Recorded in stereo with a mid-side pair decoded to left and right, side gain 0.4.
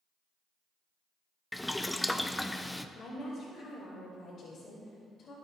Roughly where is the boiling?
Ahead.